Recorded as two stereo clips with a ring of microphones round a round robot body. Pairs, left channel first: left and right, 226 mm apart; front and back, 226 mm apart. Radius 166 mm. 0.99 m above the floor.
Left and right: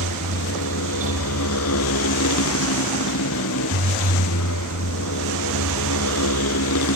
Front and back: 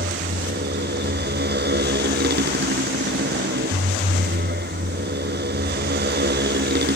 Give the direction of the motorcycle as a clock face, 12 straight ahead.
7 o'clock.